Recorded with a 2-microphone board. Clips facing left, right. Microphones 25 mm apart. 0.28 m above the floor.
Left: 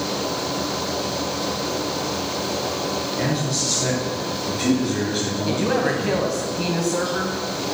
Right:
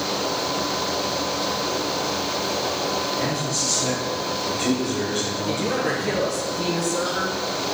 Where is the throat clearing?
I don't hear throat clearing.